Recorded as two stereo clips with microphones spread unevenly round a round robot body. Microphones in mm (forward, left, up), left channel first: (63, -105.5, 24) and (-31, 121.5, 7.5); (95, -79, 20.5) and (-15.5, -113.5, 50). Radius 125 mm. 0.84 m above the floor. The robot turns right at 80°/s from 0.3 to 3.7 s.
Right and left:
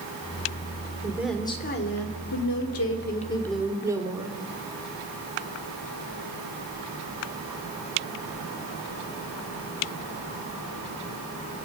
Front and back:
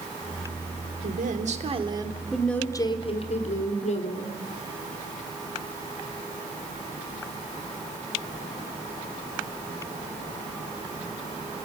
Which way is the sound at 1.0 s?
Straight behind.